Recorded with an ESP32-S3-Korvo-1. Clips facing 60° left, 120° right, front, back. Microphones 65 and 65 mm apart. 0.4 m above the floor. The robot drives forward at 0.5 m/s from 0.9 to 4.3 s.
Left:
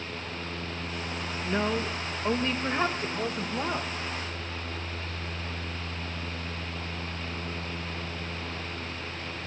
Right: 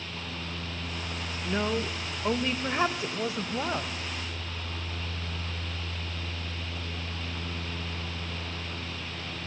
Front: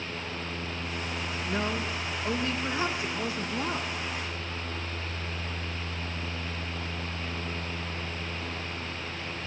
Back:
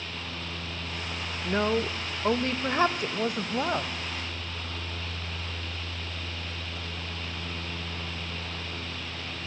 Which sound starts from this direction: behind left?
A woman speaking, at 1.4 s.